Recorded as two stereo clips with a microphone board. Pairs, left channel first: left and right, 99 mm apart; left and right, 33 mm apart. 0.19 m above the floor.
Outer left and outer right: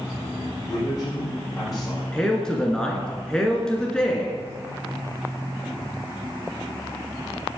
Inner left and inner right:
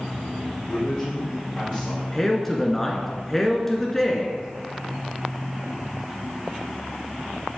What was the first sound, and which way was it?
A man speaking, 35° left (ahead or behind).